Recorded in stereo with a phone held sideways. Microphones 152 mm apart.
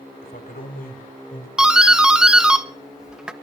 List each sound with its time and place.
0.2 s a man speaking: 80° left, 4 m
1.6 s a doorbell: 5° right (ahead or behind), 0.9 m